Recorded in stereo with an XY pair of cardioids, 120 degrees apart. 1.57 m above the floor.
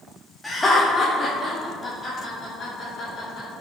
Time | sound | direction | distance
0.4 | laughter | 10° left | 0.6 m